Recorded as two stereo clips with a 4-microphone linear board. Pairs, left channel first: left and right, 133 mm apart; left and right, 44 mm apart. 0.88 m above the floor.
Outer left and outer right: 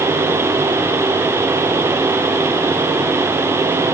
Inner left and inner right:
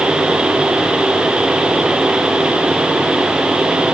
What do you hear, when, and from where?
Only background noise.